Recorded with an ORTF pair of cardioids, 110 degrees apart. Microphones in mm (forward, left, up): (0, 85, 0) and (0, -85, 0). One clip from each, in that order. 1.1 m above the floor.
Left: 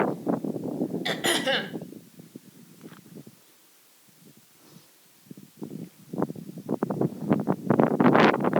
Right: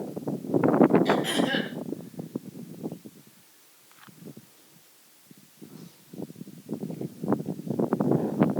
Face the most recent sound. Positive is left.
turn(degrees=60)